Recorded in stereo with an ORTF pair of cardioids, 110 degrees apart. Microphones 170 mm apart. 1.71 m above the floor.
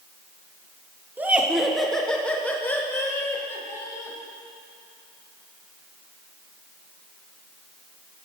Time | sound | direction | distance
1.2 | laughter | 10° right | 1.1 m